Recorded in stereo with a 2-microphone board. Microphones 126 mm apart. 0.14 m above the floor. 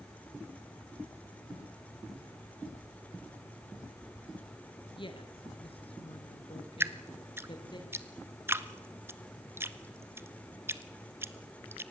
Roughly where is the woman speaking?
Left.